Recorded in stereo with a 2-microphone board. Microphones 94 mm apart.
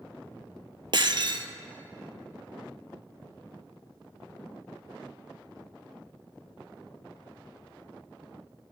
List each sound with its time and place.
0.9 s breaking glass: 60° right (ahead or behind), 0.5 m